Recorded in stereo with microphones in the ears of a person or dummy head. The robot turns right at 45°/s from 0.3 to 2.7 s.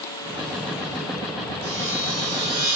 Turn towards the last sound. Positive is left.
turn(degrees=-25)